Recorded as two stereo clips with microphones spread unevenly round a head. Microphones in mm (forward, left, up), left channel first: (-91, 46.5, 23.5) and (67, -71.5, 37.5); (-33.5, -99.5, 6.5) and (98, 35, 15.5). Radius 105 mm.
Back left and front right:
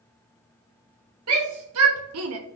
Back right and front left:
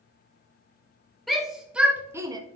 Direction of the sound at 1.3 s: 45° right.